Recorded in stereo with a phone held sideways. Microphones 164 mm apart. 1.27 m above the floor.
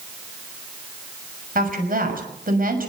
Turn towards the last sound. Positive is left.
turn(degrees=-60)  # may be behind; listen again after turning